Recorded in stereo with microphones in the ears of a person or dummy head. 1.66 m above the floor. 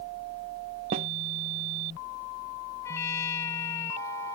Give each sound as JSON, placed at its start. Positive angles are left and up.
{"t": 0.9, "sound": "a snare drum", "side_deg": -20}
{"t": 2.8, "sound": "a trumpet", "side_deg": 15}